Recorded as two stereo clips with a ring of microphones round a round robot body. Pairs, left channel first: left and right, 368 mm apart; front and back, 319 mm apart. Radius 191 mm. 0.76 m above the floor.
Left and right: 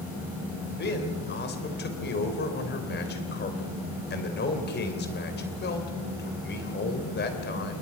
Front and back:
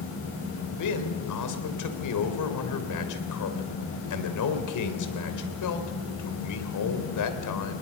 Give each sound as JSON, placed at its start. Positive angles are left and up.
{"t": 0.7, "sound": "a man speaking", "azimuth_deg": 25, "distance_m": 3.0}